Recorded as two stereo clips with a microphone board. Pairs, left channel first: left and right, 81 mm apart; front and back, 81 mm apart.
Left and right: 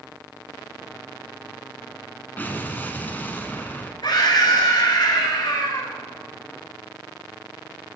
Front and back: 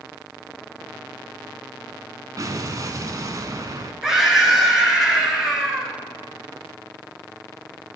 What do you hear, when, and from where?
2.4 s an explosion: 150° left, 0.7 m
4.0 s a scream: 95° left, 2 m